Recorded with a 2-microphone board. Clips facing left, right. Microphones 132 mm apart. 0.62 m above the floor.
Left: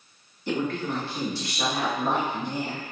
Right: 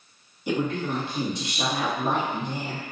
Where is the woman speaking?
15° right (ahead or behind), 0.9 m.